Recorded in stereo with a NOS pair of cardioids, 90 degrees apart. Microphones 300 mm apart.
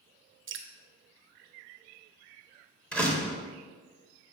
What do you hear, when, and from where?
0.5 s dripping: 45° right, 0.8 m
2.9 s a door slam: 5° left, 1.6 m